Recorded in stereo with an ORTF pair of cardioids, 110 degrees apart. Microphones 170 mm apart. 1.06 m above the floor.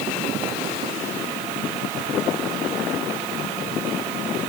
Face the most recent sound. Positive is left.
No sound to turn to.